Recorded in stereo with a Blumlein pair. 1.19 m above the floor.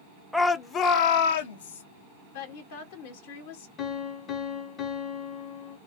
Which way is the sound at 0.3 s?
Straight ahead.